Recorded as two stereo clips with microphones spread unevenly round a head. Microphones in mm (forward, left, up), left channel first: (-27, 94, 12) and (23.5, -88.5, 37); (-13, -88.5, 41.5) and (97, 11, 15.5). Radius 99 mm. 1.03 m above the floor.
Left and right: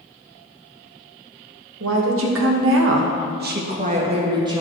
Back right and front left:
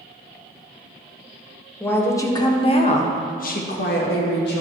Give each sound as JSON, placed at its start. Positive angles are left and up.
{"t": 1.8, "sound": "a woman speaking", "azimuth_deg": -55, "distance_m": 1.4}